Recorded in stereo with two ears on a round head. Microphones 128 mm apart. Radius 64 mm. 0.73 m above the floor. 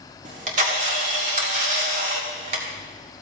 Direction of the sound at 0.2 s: 55° right (ahead or behind).